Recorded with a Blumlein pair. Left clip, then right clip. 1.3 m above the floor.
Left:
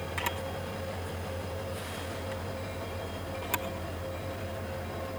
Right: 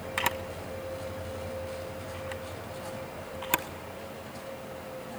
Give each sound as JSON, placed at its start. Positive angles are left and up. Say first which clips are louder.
{"t": 0.2, "sound": "a camera shutter", "louder": "right 4 dB", "azimuth_deg": -20, "distance_m": 1.2}